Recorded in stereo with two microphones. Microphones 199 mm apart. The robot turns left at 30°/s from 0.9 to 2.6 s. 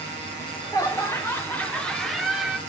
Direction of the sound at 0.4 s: 15° left (ahead or behind).